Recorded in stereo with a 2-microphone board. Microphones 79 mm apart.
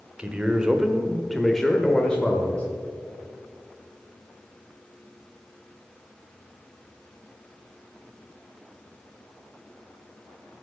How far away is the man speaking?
About 1.0 m.